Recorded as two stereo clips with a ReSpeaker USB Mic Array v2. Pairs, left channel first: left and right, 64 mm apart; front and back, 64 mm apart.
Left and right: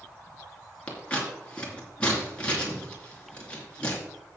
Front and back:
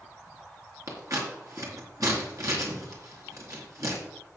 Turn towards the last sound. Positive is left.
turn(degrees=160)